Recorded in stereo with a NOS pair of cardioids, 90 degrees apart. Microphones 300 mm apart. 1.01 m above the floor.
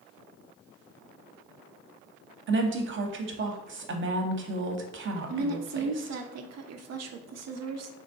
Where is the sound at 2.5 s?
45° right, 0.8 m.